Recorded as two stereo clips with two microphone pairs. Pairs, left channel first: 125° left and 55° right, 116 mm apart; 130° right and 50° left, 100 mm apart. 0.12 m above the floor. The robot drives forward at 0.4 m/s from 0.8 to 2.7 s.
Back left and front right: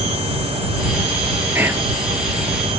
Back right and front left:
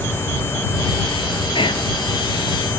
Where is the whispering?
120° right, 2.5 m; by 1.9 s 125° right, 2.5 m.